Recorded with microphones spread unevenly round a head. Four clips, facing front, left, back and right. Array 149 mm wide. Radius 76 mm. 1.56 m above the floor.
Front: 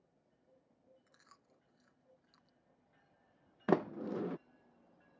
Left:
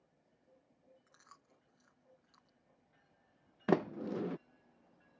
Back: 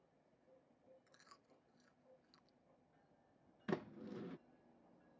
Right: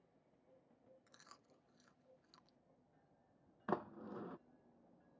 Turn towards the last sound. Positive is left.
turn(degrees=55)